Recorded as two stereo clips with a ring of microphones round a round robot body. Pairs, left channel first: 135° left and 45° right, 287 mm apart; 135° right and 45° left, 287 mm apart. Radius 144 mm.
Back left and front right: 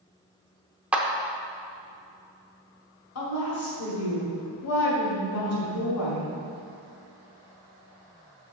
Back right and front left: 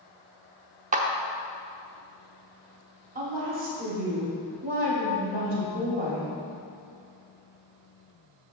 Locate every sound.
0.9 s a clap: 35° left, 0.7 m
3.1 s a woman speaking: 105° left, 1.7 m